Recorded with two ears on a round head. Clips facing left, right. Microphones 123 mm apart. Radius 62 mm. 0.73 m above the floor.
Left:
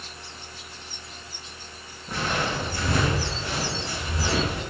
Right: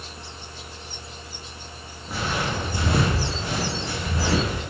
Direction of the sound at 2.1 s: 5° right (ahead or behind).